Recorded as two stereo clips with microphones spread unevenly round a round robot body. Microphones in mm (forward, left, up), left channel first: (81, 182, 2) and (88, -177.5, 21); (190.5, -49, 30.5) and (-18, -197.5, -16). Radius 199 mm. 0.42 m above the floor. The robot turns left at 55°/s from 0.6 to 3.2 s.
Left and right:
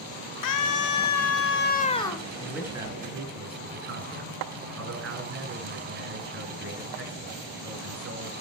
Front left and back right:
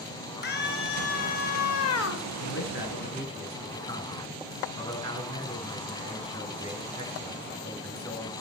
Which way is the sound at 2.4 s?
10° left.